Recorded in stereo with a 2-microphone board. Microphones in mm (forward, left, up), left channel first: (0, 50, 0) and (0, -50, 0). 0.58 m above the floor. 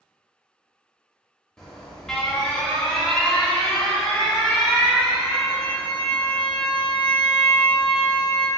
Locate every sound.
1.6 s an alarm: 5° left (ahead or behind), 0.7 m